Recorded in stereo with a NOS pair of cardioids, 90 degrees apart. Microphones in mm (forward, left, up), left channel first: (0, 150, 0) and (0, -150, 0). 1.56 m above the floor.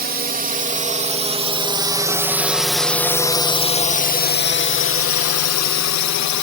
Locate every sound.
0.0 s a drone: 30° right; by 6.4 s 70° left